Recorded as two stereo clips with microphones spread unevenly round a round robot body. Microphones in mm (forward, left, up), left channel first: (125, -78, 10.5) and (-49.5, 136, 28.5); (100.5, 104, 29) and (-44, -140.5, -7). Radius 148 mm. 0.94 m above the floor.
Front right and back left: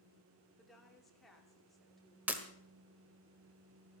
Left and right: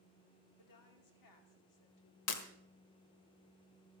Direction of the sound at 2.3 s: 45° left.